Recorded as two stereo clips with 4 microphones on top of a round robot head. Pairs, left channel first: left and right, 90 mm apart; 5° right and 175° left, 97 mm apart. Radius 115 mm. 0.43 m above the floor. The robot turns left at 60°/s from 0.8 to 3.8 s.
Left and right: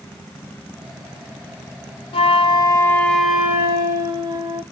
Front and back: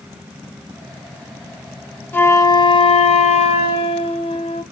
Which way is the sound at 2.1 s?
65° left.